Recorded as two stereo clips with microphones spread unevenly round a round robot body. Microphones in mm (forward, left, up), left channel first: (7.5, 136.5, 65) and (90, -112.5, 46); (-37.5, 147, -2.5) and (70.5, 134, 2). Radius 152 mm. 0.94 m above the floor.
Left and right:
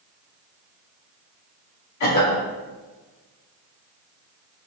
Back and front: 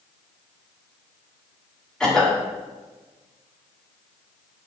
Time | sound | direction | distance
2.0 | a cough | 90° left | 1.8 m